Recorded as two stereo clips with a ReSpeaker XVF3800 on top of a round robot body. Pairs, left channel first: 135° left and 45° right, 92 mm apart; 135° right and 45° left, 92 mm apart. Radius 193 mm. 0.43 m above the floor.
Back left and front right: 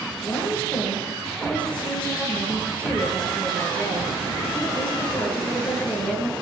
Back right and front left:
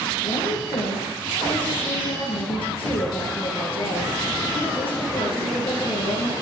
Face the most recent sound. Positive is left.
turn(degrees=-145)